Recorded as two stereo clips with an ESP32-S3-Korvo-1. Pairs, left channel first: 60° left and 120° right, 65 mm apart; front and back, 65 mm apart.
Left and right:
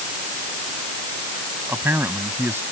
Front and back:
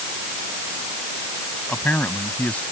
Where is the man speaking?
65° right.